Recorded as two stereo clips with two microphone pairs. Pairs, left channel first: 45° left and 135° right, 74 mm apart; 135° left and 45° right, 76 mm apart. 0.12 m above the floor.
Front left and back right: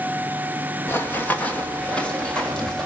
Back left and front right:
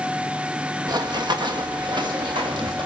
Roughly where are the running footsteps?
Ahead.